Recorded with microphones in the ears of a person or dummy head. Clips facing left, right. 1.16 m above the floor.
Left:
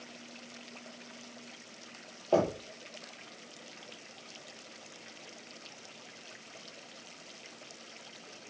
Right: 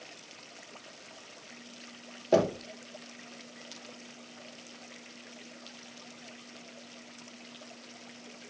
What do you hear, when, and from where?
2.3 s knocking: 30° right (ahead or behind), 0.5 m